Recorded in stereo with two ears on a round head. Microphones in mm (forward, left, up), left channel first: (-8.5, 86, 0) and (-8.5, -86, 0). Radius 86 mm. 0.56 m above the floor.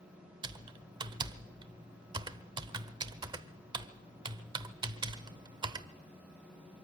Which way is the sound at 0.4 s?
25° right (ahead or behind).